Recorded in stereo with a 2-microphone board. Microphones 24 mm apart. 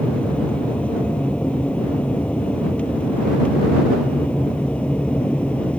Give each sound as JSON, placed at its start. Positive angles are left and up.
{"t": 0.0, "sound": "an aircraft", "side_deg": 60}